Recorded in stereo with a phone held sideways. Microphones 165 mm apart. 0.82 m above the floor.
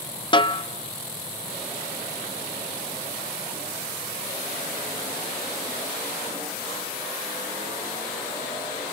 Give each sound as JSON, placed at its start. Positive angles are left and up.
{"t": 0.3, "sound": "a snare drum", "side_deg": 30, "distance_m": 1.1}